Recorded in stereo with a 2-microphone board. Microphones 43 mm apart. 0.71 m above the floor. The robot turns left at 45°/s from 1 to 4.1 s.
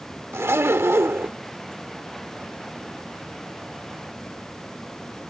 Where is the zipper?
65° right (ahead or behind), 0.9 m; by 1.4 s 50° right (ahead or behind), 0.9 m.